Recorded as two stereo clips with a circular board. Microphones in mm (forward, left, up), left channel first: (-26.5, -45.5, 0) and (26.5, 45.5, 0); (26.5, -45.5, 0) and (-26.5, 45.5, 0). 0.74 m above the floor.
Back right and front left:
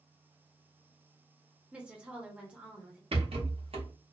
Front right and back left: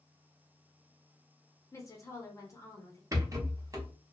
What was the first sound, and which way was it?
A woman speaking, 15° right.